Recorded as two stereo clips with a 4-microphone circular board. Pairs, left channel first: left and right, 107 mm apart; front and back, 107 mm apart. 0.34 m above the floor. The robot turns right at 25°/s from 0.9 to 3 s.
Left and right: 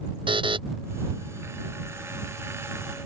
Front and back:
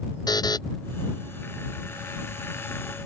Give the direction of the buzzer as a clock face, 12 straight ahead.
2 o'clock.